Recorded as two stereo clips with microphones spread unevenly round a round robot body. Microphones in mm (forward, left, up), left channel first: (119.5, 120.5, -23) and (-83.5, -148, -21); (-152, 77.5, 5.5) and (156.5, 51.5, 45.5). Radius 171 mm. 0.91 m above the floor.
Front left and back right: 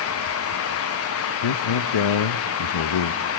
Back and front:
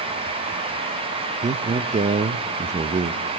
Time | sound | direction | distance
1.4 | a man speaking | 65° left | 0.6 m